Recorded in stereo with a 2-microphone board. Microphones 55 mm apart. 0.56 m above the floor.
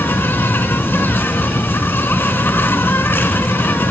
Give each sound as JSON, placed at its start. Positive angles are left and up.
{"t": 0.0, "sound": "an insect", "side_deg": 40, "distance_m": 0.8}